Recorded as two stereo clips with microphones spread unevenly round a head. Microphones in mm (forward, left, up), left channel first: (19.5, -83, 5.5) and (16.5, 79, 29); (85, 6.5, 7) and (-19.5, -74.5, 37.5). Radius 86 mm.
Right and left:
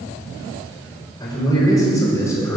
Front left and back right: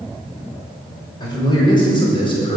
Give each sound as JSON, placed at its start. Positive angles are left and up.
{"t": 1.2, "sound": "a man speaking", "azimuth_deg": -20, "distance_m": 6.0}